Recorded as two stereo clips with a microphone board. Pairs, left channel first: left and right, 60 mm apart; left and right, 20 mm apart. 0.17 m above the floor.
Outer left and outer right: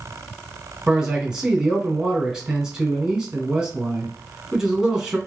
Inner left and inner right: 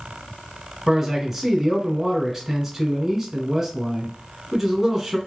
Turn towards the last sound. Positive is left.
turn(degrees=-10)  # may be behind; listen again after turning